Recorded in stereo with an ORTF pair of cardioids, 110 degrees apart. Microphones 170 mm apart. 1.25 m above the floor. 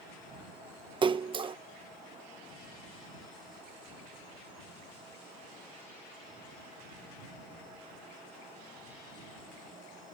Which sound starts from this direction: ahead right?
A splash, at 1.0 s.